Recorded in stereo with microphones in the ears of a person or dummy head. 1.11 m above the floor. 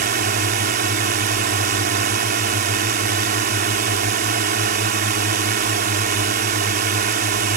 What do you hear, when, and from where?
0.0 s a drone: 50° right (ahead or behind)